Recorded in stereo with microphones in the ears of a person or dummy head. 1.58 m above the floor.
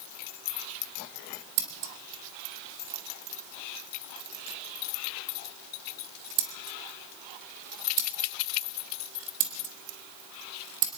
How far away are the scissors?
About 1.4 m.